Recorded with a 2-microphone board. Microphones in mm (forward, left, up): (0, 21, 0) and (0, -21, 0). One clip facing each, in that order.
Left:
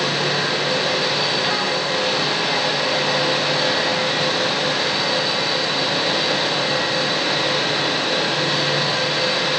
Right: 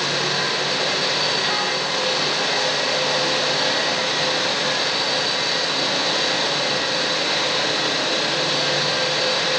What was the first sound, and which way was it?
Only background noise.